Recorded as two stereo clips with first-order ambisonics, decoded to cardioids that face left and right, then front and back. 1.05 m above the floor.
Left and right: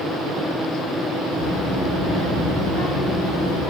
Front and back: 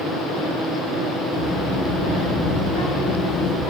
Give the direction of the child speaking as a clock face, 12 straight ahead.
11 o'clock.